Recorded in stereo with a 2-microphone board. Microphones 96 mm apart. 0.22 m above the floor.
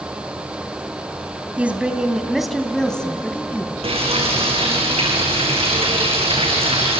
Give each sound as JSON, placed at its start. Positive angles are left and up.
{"t": 1.6, "sound": "a woman speaking", "side_deg": -15, "distance_m": 1.9}
{"t": 3.8, "sound": "frying", "side_deg": -85, "distance_m": 6.5}